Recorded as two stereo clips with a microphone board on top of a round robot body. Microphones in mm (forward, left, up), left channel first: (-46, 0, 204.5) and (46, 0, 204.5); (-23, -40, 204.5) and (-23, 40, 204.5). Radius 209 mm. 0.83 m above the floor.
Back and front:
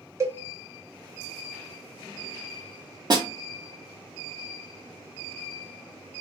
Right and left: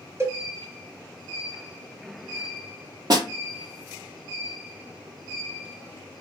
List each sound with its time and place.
0.2 s a cowbell: 45° left, 1.1 m
3.1 s a snare drum: 45° left, 0.9 m